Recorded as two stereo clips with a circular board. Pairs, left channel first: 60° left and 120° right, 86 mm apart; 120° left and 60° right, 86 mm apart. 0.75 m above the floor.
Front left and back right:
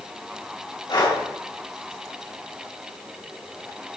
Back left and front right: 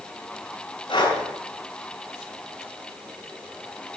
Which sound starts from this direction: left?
Breathing, at 0.9 s.